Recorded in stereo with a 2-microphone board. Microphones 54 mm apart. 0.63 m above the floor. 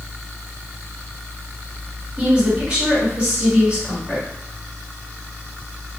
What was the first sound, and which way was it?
A woman speaking, 25° right (ahead or behind).